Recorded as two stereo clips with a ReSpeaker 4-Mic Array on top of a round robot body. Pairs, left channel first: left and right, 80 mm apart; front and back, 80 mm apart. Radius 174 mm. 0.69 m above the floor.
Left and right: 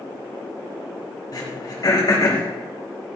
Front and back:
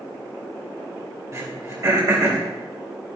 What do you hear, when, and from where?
1.3 s throat clearing: 130° left, 4.5 m